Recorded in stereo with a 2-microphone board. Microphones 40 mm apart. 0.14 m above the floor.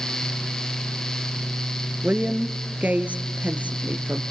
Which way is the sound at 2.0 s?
40° right (ahead or behind).